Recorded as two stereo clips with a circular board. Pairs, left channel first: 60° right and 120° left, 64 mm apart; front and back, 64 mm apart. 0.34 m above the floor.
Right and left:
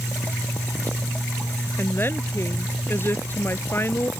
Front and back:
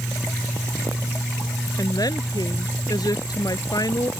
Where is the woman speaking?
10° right.